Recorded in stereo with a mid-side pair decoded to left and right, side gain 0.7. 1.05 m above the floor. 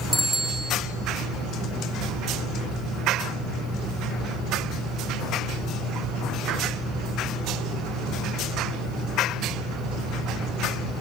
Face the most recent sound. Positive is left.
turn(degrees=5)